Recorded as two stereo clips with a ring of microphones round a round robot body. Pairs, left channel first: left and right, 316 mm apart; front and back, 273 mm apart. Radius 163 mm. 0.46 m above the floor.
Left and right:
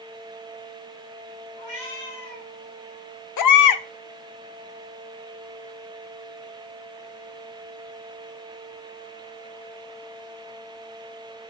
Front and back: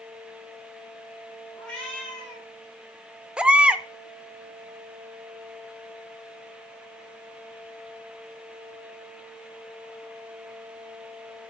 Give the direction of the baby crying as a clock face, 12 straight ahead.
9 o'clock.